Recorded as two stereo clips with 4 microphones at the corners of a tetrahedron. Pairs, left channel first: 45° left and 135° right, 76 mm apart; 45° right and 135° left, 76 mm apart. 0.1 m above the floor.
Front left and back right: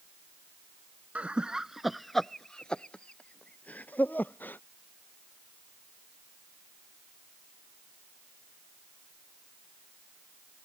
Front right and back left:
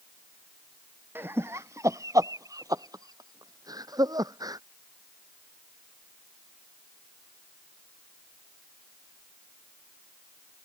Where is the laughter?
165° left; by 4.6 s 105° left.